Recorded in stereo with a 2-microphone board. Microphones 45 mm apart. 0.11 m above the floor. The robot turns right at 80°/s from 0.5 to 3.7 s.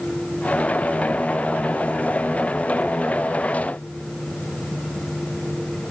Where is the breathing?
I don't hear breathing.